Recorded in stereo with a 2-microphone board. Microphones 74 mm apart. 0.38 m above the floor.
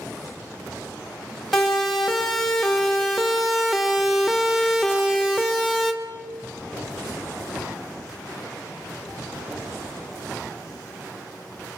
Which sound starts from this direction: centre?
A siren, at 1.5 s.